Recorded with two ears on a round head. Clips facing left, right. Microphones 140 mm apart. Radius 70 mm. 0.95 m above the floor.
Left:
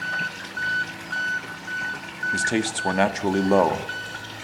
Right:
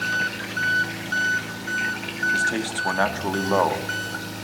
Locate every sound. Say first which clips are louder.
0.0 s an engine running: right 4 dB; 55° right (ahead or behind), 1.2 m
2.3 s a man speaking: left 4 dB; 20° left (ahead or behind), 1.6 m